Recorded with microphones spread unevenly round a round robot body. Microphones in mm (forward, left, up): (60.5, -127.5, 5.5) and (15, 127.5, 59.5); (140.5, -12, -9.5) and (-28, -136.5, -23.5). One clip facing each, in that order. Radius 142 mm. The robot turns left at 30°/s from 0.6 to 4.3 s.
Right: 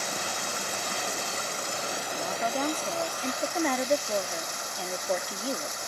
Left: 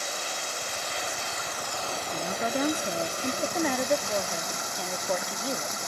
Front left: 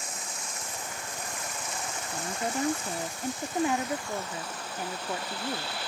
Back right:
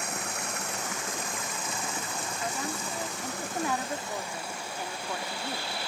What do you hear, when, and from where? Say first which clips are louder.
0.0 s running water: right 2 dB, back right 6 dB; 115° right; by 5.9 s 135° left
2.1 s a woman speaking: left 2 dB, front left 3 dB; 40° left; by 5.8 s 25° right